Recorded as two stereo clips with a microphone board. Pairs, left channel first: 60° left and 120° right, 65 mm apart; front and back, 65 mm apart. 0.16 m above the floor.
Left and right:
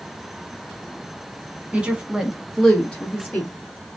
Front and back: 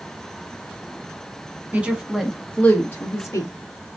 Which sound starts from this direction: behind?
A woman speaking, at 1.7 s.